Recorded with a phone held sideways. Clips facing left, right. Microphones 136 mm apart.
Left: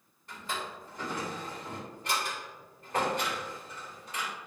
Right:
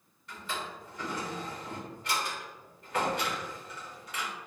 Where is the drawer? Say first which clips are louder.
Even; 45° left (ahead or behind), 2.0 m.